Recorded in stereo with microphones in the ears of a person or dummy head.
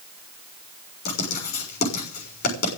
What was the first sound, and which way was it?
Writing, 50° left (ahead or behind).